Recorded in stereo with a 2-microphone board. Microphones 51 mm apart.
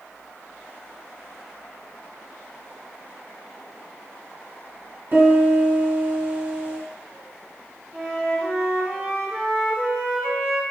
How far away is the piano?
About 1.6 m.